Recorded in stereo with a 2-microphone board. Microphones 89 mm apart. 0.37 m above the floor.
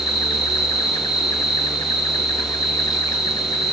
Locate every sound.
0.0 s an insect: 55° left (ahead or behind), 3 m